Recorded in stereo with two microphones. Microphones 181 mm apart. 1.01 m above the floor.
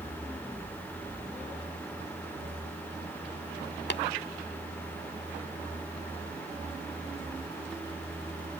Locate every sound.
3.9 s tapping: 75° left (ahead or behind)